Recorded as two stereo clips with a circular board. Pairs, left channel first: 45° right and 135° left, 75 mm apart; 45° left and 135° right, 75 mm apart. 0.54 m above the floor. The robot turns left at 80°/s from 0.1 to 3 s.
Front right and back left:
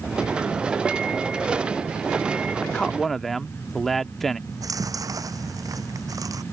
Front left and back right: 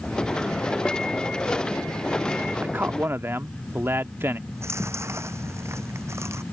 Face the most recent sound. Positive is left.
turn(degrees=175)